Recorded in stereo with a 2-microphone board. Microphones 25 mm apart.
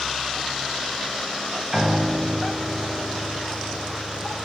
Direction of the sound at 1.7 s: 15° right (ahead or behind).